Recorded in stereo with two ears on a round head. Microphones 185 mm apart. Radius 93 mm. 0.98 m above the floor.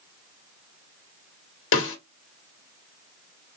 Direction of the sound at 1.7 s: 65° left (ahead or behind).